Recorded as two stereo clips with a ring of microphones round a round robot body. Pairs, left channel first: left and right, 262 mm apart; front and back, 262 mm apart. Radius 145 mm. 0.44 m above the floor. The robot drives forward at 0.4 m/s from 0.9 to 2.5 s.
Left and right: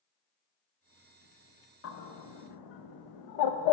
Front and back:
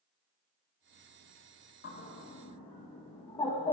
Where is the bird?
55° left, 0.7 m; by 3.7 s 75° left, 0.6 m.